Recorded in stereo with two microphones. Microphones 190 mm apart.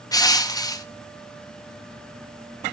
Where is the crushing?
20° left (ahead or behind), 0.7 m.